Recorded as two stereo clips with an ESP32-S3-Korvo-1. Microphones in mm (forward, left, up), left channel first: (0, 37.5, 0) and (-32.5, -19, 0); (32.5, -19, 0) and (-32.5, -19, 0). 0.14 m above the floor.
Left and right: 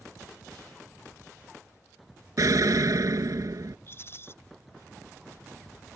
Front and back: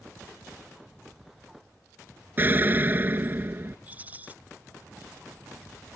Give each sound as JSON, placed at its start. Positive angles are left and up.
{"t": 2.4, "sound": "an explosion", "azimuth_deg": -125}
{"t": 3.9, "sound": "a rattle", "azimuth_deg": 115}